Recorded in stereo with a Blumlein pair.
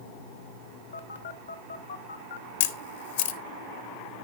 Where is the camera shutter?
55° left, 0.8 m.